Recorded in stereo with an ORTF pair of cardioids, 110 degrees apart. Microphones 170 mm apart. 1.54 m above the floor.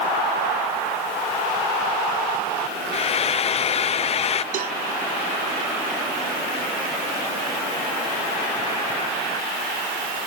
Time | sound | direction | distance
2.9 | frying | 35° left | ?
4.5 | a cowbell | 55° right | ?